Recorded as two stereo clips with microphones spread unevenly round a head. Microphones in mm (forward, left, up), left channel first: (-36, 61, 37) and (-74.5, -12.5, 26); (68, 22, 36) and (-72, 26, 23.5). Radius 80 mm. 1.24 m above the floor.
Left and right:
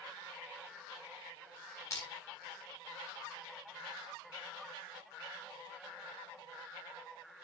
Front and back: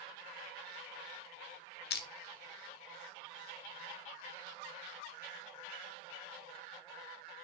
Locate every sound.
1.9 s crushing: 5° right, 1.8 m